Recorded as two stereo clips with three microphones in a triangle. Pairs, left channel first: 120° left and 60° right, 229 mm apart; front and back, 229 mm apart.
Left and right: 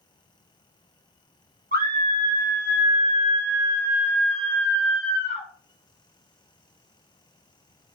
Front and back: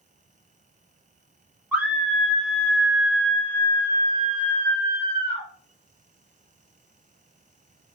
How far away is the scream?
About 1.7 m.